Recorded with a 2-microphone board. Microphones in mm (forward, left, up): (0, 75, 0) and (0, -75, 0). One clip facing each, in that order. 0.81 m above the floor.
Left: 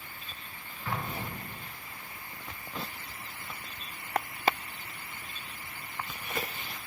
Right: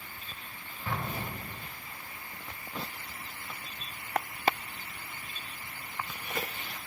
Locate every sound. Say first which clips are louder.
0.8 s an explosion: even; 30° right (ahead or behind), 1.0 m